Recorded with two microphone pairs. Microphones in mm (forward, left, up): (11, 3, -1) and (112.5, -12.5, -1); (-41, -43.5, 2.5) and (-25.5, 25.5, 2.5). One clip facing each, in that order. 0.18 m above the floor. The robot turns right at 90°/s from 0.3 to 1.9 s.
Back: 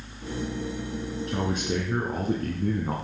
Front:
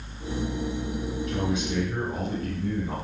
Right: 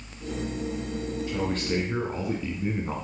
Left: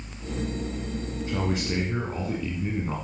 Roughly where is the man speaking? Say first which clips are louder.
Back 1 dB, left 1 dB; behind left.